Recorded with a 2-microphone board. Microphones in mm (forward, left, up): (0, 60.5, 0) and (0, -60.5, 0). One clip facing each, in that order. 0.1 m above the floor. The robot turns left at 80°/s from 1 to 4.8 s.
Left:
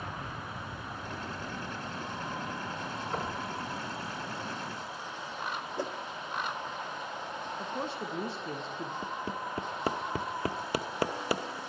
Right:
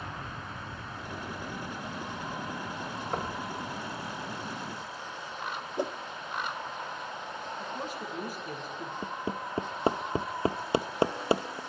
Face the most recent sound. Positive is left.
turn(degrees=-25)  # may be behind; listen again after turning